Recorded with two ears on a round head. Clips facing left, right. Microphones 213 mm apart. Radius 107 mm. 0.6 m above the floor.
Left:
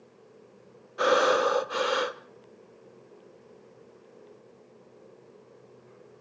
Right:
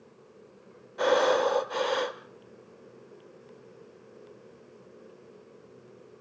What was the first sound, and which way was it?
Breathing, 10° left (ahead or behind).